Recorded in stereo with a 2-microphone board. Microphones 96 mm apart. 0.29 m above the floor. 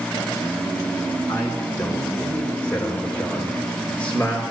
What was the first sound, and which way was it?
A man speaking, 25° left (ahead or behind).